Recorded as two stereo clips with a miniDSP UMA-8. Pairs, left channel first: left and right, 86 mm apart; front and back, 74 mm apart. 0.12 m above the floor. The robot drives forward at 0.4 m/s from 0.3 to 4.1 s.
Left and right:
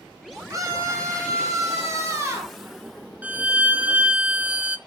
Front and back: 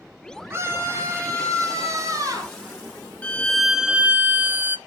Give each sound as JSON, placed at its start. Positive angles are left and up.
{"t": 0.5, "sound": "a scream", "azimuth_deg": -135, "distance_m": 2.0}
{"t": 3.2, "sound": "a violin", "azimuth_deg": -40, "distance_m": 0.5}